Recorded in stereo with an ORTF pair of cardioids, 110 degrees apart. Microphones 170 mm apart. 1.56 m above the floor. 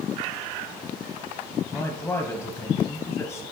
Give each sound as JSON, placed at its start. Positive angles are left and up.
{"t": 1.7, "sound": "a man speaking", "azimuth_deg": 10, "distance_m": 0.8}